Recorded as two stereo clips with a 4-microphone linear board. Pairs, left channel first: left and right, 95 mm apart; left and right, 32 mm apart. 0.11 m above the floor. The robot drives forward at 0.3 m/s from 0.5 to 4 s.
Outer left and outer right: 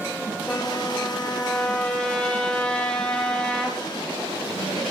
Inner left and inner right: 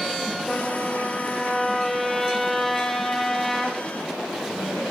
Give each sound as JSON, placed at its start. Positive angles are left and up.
{"t": 0.5, "sound": "a trumpet", "side_deg": 15, "distance_m": 1.9}